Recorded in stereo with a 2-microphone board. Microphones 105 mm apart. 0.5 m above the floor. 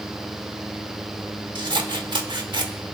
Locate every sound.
1.6 s scissors: 45° right (ahead or behind), 1.3 m